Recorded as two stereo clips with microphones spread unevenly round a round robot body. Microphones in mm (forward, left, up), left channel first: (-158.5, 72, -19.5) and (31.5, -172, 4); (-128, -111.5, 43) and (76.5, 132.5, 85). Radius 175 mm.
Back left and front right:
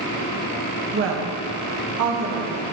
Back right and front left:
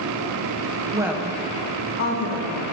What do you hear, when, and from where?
0.9 s a woman speaking: 25° right, 1.0 m; by 2.6 s 95° right, 2 m